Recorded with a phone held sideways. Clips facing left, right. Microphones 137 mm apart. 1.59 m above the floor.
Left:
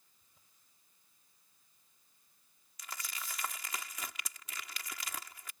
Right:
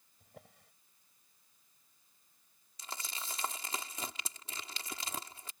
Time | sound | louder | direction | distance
0.2 | a drawer | right 22 dB | 80° right | ?
2.8 | crumpling | right 1 dB | 30° right (ahead or behind) | ?